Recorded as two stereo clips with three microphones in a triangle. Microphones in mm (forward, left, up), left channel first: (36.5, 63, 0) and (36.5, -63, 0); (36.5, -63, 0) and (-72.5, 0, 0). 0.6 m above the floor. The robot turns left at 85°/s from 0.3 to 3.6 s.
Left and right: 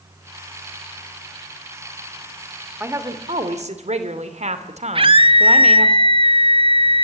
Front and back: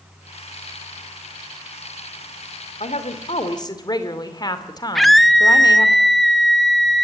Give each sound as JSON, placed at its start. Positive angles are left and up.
{"t": 2.8, "sound": "a woman speaking", "azimuth_deg": -15, "distance_m": 2.0}
{"t": 5.0, "sound": "a scream", "azimuth_deg": -120, "distance_m": 1.0}